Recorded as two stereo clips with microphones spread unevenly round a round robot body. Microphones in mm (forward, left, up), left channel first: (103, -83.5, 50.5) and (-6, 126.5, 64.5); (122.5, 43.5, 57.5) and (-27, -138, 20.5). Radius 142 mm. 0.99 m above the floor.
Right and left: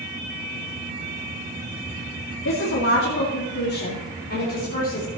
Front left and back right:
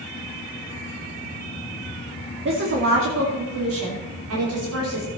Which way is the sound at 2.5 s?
100° right.